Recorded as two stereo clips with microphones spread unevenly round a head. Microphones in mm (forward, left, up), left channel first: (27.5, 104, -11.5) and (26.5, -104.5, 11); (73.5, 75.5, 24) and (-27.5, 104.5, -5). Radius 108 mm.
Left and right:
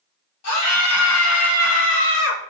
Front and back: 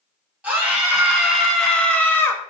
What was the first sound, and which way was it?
A scream, 85° left.